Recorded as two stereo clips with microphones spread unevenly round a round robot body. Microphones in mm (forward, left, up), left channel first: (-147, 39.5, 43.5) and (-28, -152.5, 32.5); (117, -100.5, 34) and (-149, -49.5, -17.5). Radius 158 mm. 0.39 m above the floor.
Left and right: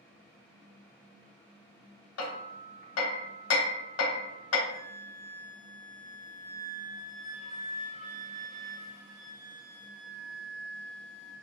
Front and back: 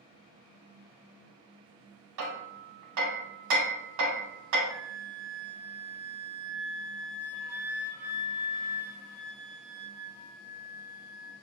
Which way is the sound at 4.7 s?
60° left.